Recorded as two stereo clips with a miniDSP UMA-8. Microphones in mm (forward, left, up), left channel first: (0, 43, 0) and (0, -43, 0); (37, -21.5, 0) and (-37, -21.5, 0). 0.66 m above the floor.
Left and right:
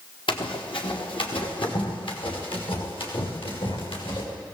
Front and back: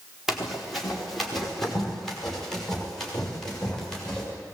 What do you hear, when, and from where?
0.3 s running footsteps: 95° left, 4 m; by 4.2 s 80° left, 7.5 m